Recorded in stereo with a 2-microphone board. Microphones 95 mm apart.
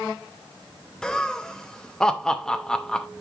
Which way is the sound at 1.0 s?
5° left (ahead or behind).